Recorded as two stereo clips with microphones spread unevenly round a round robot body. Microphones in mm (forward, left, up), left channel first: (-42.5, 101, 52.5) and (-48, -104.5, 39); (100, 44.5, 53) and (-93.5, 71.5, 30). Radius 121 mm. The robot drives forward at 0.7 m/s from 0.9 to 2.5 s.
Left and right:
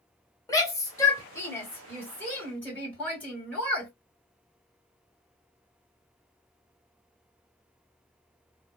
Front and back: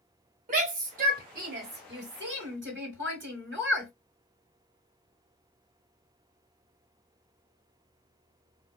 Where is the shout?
160° left, 1.1 m; by 3.9 s 170° left, 2 m.